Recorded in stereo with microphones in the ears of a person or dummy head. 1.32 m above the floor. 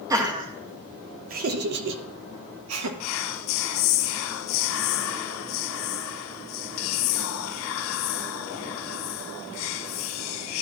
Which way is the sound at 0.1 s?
20° right (ahead or behind).